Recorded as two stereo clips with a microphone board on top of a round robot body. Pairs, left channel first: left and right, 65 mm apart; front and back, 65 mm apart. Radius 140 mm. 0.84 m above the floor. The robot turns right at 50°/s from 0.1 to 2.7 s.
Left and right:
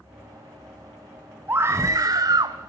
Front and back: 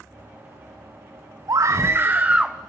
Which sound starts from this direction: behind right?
A scream, at 1.5 s.